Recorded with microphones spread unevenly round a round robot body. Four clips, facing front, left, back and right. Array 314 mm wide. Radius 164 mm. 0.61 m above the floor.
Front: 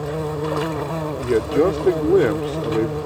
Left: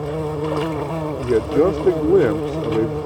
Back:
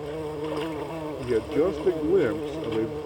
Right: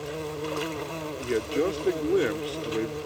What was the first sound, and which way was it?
An insect, 35° left.